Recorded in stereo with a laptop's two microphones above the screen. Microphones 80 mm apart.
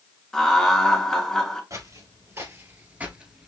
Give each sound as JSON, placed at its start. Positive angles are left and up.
{"t": 0.3, "sound": "laughter", "side_deg": 5, "distance_m": 0.9}
{"t": 1.7, "sound": "footsteps", "side_deg": -45, "distance_m": 1.4}